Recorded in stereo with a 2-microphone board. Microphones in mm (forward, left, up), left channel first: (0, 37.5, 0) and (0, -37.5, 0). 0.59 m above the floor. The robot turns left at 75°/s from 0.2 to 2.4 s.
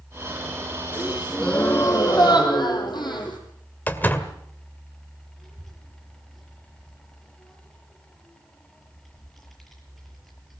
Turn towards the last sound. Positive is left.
turn(degrees=0)  # may be behind; listen again after turning